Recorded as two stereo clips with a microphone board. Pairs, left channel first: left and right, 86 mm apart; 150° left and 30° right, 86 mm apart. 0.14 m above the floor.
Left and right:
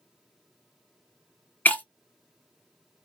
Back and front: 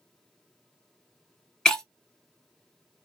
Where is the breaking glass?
85° left, 0.7 m.